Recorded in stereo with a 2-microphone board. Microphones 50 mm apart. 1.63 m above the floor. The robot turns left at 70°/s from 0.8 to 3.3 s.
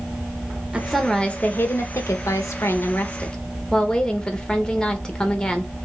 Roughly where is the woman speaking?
Behind.